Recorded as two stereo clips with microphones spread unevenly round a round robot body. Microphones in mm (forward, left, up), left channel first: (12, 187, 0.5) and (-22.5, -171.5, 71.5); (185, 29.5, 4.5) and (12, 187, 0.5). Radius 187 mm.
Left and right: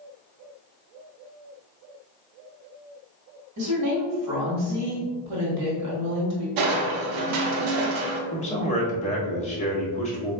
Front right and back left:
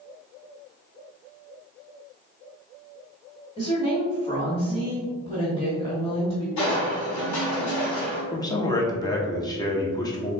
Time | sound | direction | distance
3.6 | a woman speaking | 95° right | 1.3 m
6.6 | crushing | 80° right | 0.6 m
8.3 | a man speaking | 30° left | 0.8 m